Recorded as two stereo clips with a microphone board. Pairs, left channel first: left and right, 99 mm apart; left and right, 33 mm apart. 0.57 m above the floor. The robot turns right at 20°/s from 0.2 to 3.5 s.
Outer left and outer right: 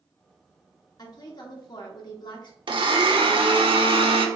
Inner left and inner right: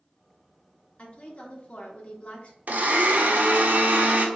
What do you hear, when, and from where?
1.0 s a woman speaking: 70° left, 0.9 m; by 2.6 s 100° left, 0.9 m
2.7 s a blender: 55° right (ahead or behind), 0.6 m; by 4.3 s 65° right (ahead or behind), 0.6 m